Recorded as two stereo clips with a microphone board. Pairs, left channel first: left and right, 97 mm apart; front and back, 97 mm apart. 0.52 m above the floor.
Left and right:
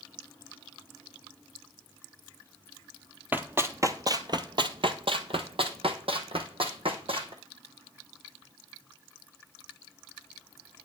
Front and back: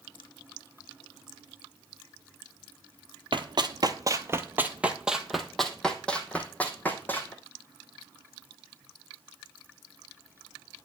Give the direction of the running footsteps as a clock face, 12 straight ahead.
5 o'clock.